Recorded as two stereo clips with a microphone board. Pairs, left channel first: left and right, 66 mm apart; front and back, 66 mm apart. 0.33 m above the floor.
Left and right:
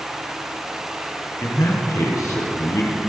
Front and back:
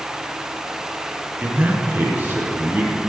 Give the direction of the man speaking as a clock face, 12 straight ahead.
8 o'clock.